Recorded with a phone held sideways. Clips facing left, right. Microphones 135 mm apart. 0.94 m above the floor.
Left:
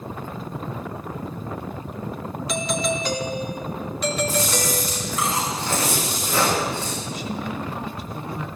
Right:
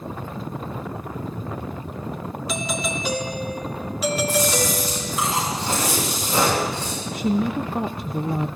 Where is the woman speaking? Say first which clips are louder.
Right 7 dB; 55° right (ahead or behind), 0.5 m.